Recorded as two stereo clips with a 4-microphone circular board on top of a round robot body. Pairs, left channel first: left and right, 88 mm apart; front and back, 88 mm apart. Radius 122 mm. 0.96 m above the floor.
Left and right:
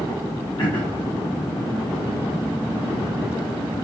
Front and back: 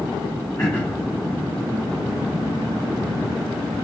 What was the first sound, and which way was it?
Throat clearing, 65° left.